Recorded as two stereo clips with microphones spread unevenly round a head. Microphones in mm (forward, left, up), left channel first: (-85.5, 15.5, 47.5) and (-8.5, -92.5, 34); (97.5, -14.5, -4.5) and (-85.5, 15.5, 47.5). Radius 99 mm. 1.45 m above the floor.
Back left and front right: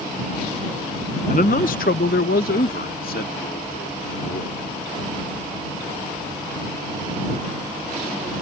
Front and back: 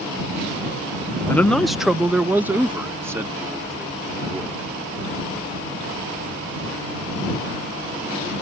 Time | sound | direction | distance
1.3 | a man speaking | 70° left | ?